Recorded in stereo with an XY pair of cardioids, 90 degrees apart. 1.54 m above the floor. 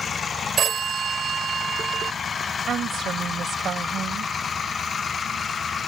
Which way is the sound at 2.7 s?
65° right.